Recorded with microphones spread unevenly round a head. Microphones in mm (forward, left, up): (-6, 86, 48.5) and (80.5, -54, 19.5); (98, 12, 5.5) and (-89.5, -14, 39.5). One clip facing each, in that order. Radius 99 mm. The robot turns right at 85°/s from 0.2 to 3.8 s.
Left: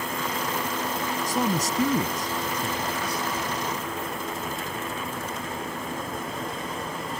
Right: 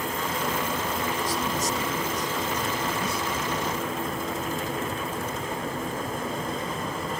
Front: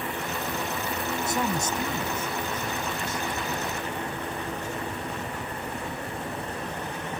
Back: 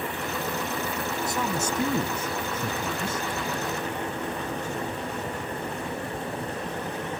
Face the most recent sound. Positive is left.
turn(degrees=-70)